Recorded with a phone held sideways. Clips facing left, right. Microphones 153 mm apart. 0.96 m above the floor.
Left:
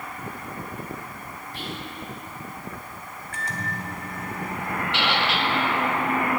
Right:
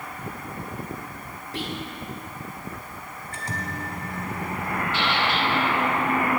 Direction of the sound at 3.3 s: 35° right (ahead or behind).